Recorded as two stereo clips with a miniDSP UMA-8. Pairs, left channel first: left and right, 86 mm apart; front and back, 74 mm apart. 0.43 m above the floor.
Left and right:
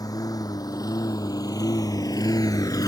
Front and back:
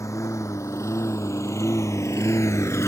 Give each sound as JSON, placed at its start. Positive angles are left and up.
{"t": 0.0, "sound": "a lawn mower", "azimuth_deg": 45}